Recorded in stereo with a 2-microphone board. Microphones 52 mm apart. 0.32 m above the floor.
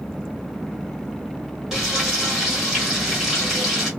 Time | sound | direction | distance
1.7 | frying | 5° right (ahead or behind) | 1.6 m